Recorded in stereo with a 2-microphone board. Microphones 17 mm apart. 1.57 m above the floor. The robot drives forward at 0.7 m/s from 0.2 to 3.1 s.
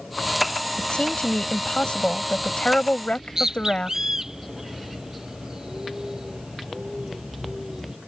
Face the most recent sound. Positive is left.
turn(degrees=-30)  # may be behind; listen again after turning